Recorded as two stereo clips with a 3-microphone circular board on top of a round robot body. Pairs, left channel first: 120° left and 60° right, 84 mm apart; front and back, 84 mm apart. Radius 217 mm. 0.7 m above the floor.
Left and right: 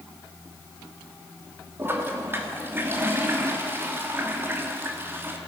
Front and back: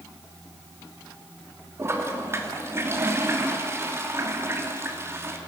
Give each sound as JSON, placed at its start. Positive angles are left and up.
{"t": 1.8, "sound": "a toilet flushing", "azimuth_deg": -120, "distance_m": 2.5}